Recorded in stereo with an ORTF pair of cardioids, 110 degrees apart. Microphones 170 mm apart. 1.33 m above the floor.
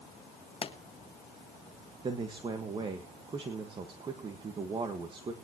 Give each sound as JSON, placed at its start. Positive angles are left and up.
{"t": 0.6, "sound": "a pop", "azimuth_deg": 35, "distance_m": 1.6}
{"t": 2.0, "sound": "a man speaking", "azimuth_deg": -30, "distance_m": 1.6}